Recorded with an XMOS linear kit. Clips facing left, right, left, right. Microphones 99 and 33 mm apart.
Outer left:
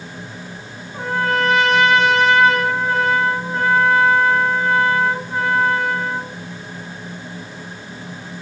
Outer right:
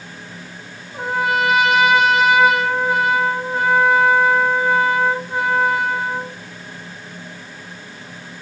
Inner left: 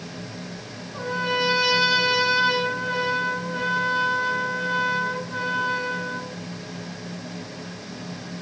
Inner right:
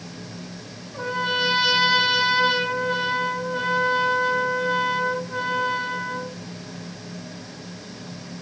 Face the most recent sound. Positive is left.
turn(degrees=-10)  # may be behind; listen again after turning